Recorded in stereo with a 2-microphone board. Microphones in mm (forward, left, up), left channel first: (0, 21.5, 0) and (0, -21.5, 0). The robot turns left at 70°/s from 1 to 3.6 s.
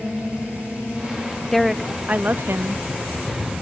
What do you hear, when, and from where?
1.5 s a woman speaking: 5° left, 0.7 m; by 2.8 s 90° right, 0.7 m